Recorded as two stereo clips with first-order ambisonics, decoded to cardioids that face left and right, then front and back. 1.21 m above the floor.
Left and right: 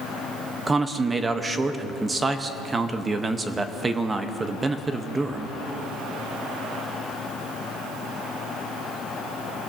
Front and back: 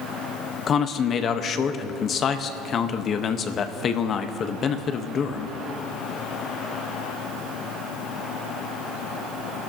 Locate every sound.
0.7 s a man speaking: 25° right, 0.6 m